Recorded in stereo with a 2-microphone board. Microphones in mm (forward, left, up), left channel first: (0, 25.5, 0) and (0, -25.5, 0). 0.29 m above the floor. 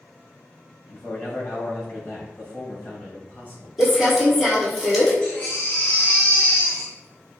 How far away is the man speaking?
About 1.6 m.